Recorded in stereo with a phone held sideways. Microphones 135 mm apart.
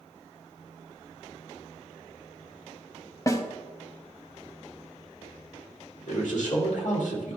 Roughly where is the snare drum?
Left.